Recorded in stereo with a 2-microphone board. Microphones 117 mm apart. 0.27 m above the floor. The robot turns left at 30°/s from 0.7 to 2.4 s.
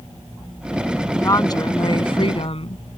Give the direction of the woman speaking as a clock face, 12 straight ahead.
7 o'clock.